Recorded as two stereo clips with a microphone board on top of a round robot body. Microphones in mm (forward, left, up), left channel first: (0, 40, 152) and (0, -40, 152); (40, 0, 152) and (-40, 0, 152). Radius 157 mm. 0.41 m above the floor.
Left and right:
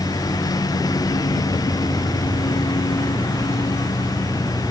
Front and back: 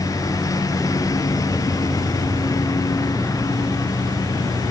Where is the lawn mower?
45° left.